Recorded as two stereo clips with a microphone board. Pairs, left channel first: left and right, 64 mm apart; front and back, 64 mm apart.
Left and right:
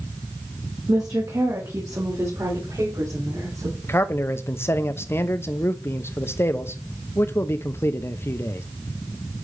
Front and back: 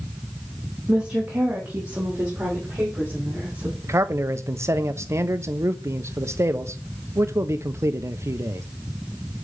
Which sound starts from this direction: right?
A woman speaking, at 0.9 s.